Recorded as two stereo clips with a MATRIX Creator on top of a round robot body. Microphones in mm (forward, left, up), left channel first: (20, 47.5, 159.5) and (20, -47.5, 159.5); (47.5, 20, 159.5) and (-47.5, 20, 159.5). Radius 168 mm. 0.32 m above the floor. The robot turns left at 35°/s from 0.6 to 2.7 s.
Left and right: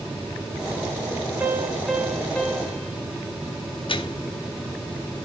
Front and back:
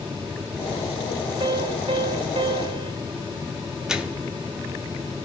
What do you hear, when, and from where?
1.4 s a piano: 160° right, 1.6 m; by 2.9 s 155° left, 1.6 m
3.9 s a microwave: 100° left, 1.2 m